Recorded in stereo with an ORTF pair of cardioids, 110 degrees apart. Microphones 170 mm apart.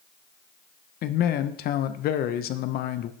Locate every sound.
1.0 s a man speaking: 60° left, 0.6 m